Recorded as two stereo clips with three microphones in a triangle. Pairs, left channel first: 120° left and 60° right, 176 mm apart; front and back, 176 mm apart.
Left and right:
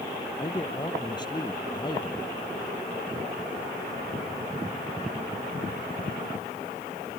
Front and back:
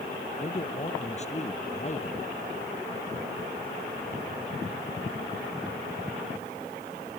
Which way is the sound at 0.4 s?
55° left.